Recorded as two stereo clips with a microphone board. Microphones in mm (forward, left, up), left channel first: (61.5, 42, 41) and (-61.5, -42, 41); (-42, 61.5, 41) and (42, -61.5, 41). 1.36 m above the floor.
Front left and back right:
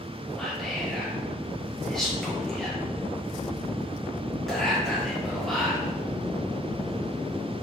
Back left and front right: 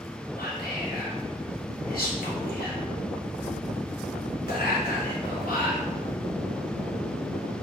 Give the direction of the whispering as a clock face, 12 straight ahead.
8 o'clock.